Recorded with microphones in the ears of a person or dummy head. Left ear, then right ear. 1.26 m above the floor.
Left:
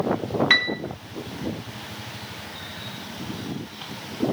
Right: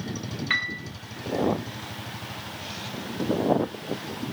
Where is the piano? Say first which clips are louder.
Left 6 dB; 20° left (ahead or behind), 0.7 m.